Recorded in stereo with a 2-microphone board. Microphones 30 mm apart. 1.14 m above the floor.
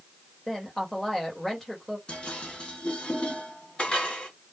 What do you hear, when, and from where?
0.5 s a woman speaking: 5° left (ahead or behind), 1.1 m
2.1 s dishes clattering: 35° left (ahead or behind), 1.5 m